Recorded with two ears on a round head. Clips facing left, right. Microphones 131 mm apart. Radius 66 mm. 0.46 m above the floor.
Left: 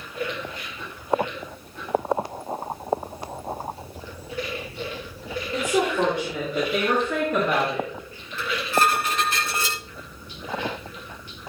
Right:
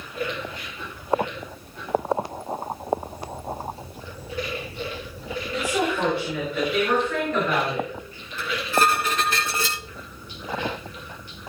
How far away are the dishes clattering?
About 4 m.